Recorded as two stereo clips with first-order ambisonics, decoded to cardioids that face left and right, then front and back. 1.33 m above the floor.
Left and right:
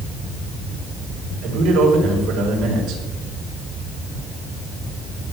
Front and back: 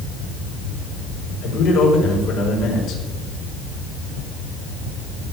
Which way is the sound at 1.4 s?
45° right.